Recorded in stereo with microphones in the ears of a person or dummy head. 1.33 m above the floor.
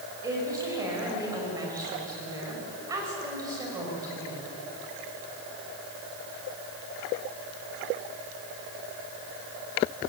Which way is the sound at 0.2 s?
15° right (ahead or behind).